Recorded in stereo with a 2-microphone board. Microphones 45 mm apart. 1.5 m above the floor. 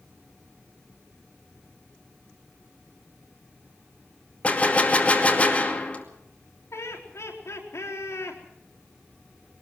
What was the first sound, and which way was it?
A gunshot, 25° left (ahead or behind).